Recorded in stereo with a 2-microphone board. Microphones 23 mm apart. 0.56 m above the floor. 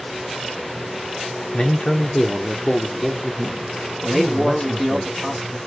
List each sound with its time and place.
1.5 s a man speaking: 55° left (ahead or behind), 1.1 m; by 5.0 s centre (ahead or behind), 1.9 m
4.0 s a man speaking: centre (ahead or behind), 1.4 m